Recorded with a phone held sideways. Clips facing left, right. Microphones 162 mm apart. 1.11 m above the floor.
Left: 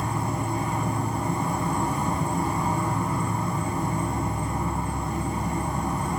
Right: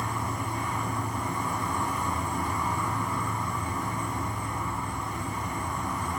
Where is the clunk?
I don't hear a clunk.